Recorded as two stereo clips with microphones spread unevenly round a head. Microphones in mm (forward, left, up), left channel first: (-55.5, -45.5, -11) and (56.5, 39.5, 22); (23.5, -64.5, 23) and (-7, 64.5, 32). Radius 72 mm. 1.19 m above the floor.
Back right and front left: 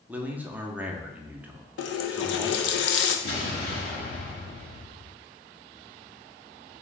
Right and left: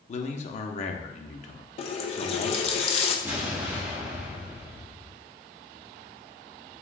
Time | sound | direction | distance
0.1 | a man speaking | 50° right | 0.7 m
1.8 | a running tap | 130° right | 0.5 m
3.2 | an explosion | 175° right | 1.6 m